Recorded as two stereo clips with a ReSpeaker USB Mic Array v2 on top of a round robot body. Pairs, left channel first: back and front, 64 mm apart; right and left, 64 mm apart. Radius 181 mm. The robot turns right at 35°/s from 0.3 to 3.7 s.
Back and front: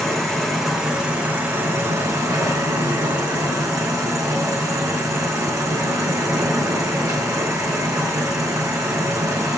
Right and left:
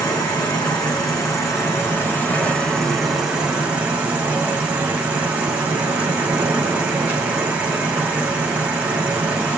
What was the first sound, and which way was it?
An insect, 95° right.